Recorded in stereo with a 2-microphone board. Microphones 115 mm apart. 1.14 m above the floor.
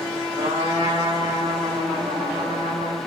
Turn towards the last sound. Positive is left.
turn(degrees=-75)  # may be behind; listen again after turning